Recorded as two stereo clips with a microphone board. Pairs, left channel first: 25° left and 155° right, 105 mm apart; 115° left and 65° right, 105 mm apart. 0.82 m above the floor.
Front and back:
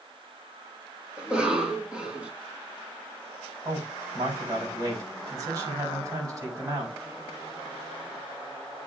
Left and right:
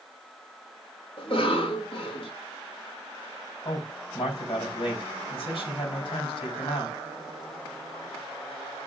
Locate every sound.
1.2 s a cough: 125° left, 2.0 m
3.6 s a man speaking: 150° left, 4.5 m